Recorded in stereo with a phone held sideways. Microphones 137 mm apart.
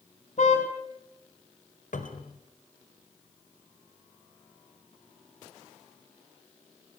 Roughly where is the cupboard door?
Left.